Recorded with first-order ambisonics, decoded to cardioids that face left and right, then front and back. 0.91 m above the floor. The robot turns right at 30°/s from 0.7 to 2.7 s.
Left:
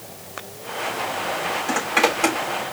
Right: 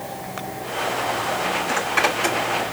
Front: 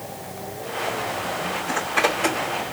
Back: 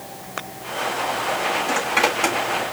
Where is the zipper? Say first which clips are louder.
Left 2 dB, even; 110° left, 3.5 m; by 2.4 s 130° left, 3.5 m.